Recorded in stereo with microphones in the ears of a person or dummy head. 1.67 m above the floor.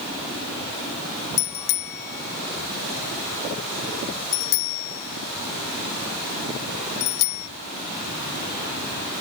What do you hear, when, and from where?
1.4 s a bicycle bell: 55° left (ahead or behind); by 7.5 s 80° left